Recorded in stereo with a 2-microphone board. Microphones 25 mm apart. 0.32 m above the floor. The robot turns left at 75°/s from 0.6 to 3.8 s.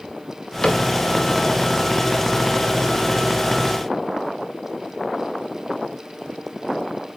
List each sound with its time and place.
0.6 s a cupboard door: 40° left (ahead or behind), 1.2 m; by 0.8 s 35° left (ahead or behind), 1.2 m